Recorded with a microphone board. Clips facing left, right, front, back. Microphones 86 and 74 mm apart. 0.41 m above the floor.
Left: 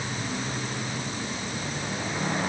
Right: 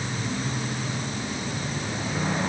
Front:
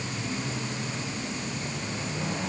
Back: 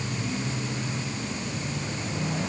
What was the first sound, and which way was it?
Only background noise.